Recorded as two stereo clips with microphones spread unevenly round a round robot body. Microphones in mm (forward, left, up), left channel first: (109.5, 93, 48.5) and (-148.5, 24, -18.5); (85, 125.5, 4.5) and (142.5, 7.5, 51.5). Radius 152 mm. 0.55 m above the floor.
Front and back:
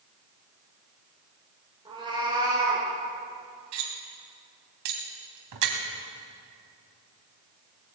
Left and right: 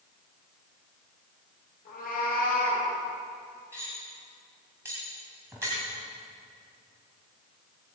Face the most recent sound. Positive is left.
turn(degrees=-145)